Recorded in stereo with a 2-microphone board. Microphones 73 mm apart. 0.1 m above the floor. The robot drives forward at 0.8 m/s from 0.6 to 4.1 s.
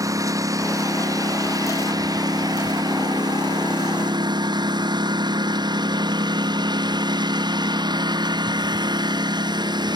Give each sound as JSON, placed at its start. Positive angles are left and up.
{"t": 0.0, "sound": "a lawn mower", "side_deg": -50}